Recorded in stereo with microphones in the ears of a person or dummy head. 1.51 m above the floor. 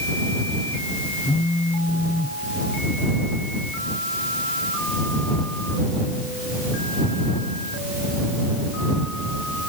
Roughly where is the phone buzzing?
Centre.